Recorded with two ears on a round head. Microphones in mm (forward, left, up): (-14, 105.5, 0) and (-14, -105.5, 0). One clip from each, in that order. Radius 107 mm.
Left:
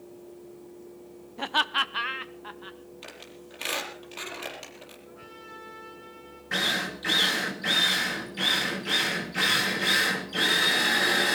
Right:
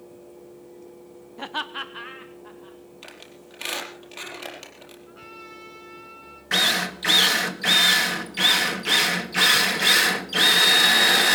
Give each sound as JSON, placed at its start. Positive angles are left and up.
{"t": 1.4, "sound": "laughter", "side_deg": 5, "distance_m": 0.8}
{"t": 3.0, "sound": "a squeak", "side_deg": -5, "distance_m": 4.5}
{"t": 5.1, "sound": "a trumpet", "side_deg": -60, "distance_m": 9.0}
{"t": 6.5, "sound": "a drill", "side_deg": -45, "distance_m": 2.0}